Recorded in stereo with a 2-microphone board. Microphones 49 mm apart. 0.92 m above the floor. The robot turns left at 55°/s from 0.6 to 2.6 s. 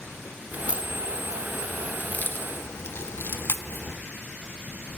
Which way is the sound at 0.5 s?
30° right (ahead or behind).